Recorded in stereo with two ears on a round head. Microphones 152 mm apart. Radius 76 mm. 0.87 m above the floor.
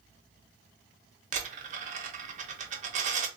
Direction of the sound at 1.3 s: 45° right (ahead or behind).